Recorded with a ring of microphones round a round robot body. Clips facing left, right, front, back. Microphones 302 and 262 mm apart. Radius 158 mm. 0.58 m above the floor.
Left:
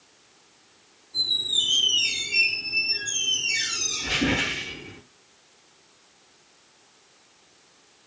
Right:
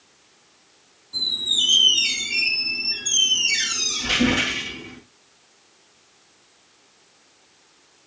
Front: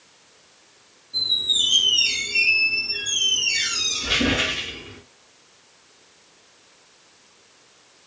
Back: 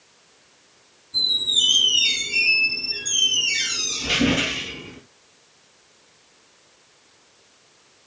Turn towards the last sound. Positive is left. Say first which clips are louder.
# right 4 dB, back 2 dB
turn(degrees=-120)